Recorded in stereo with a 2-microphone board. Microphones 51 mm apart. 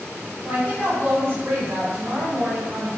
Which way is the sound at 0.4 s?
45° right (ahead or behind).